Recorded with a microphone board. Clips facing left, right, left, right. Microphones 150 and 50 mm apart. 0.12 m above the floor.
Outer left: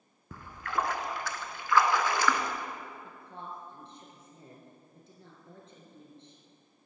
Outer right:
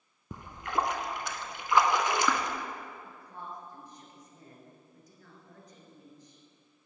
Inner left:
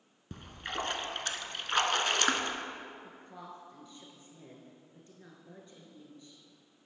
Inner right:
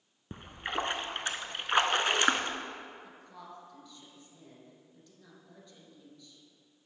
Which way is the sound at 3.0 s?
30° left (ahead or behind).